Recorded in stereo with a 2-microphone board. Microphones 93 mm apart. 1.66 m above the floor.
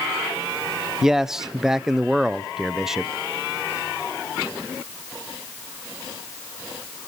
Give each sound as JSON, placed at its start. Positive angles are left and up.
{"t": 1.0, "sound": "a man speaking", "side_deg": -5, "distance_m": 0.5}